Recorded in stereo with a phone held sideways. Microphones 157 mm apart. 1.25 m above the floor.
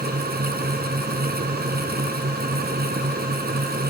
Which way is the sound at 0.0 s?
85° right.